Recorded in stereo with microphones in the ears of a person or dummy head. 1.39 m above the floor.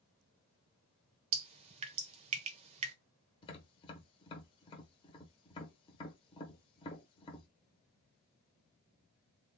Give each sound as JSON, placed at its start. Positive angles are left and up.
{"t": 1.3, "sound": "dripping", "side_deg": -35, "distance_m": 0.6}
{"t": 3.4, "sound": "tapping", "side_deg": 25, "distance_m": 1.0}